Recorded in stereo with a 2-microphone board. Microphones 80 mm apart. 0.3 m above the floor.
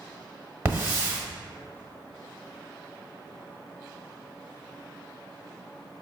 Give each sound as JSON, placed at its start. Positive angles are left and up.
{"t": 0.7, "sound": "a hiss", "side_deg": -35, "distance_m": 1.3}